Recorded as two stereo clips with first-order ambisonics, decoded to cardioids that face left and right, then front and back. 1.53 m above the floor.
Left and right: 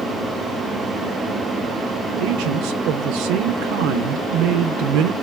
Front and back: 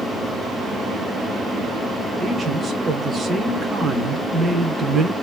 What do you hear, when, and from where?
2.2 s a man speaking: 105° right, 0.6 m